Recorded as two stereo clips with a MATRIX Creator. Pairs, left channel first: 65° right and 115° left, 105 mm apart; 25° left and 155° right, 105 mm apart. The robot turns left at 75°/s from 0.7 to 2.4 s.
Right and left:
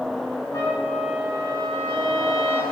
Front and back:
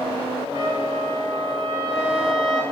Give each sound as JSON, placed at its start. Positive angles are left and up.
{"t": 0.5, "sound": "a trumpet", "azimuth_deg": -125, "distance_m": 5.0}